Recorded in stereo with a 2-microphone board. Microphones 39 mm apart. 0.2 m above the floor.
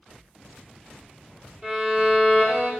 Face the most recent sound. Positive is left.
turn(degrees=-20)  # may be behind; listen again after turning